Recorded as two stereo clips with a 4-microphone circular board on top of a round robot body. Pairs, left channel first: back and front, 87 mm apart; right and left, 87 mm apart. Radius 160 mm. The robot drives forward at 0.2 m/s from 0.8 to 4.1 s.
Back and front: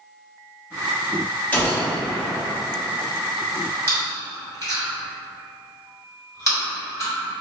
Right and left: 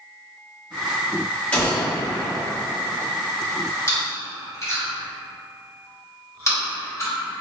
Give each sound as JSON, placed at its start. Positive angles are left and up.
{"t": 1.5, "sound": "a gunshot", "azimuth_deg": -140, "distance_m": 1.3}
{"t": 3.9, "sound": "chewing", "azimuth_deg": -135, "distance_m": 1.9}